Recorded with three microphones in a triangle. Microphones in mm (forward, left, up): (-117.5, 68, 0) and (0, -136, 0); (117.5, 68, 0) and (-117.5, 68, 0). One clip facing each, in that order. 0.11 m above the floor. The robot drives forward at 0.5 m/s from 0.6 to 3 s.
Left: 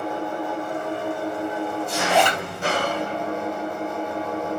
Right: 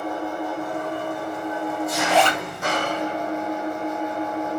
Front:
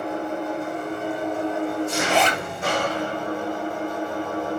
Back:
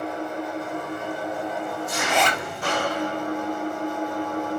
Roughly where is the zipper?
Ahead left.